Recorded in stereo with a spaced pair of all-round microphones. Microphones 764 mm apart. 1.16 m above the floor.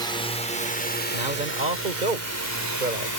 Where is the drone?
5° left (ahead or behind); by 3.2 s 25° left (ahead or behind).